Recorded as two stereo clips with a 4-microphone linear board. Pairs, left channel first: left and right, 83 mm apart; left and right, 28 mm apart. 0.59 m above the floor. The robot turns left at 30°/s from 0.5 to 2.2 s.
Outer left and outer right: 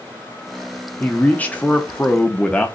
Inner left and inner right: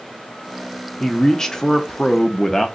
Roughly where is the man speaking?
Left.